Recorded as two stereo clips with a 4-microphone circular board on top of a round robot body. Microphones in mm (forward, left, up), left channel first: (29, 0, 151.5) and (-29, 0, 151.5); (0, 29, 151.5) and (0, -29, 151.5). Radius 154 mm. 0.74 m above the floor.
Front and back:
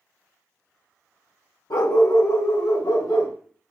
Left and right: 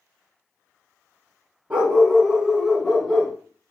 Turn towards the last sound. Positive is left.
turn(degrees=10)